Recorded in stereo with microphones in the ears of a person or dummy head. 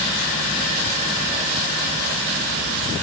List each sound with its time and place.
Only background noise.